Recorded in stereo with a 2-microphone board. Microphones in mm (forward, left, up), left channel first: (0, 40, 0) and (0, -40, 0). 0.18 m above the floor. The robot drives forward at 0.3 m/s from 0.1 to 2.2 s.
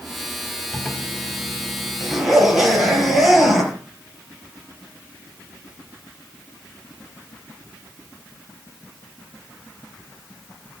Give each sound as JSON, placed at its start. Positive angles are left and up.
{"t": 0.7, "sound": "a zipper", "side_deg": -5, "distance_m": 4.0}